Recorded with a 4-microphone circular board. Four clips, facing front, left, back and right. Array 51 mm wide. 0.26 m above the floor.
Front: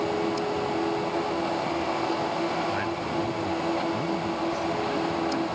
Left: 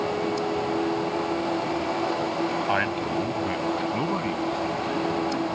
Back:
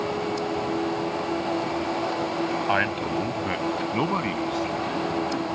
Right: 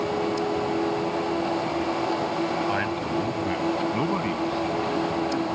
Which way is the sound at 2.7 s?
160° left.